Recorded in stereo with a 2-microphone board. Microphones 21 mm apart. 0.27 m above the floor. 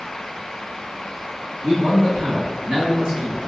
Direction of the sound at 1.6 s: 55° right (ahead or behind).